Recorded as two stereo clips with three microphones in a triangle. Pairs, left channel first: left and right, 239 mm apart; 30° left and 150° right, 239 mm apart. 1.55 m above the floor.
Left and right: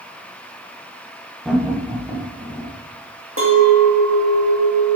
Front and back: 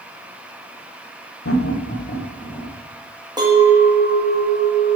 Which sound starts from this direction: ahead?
Laughter, at 1.4 s.